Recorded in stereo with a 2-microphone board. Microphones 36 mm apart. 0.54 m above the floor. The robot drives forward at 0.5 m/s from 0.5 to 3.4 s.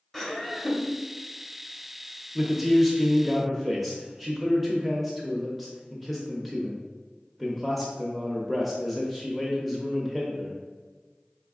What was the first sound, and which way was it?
Laughter, 10° left (ahead or behind).